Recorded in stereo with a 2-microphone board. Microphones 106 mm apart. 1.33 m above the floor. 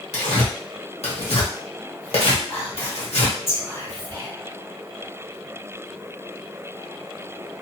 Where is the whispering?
25° left (ahead or behind), 1.5 m.